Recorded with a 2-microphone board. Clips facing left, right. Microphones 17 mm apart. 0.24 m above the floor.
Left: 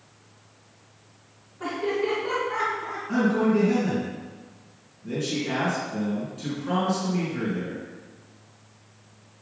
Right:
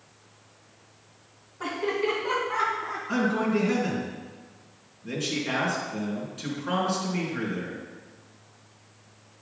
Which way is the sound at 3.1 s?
30° right (ahead or behind).